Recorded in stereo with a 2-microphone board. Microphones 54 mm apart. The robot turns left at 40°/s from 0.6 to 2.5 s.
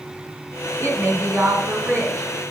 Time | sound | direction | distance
0.8 | a woman speaking | 65° right | 3.5 m